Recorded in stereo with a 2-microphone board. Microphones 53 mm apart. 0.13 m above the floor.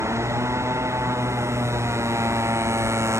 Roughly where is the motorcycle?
Right.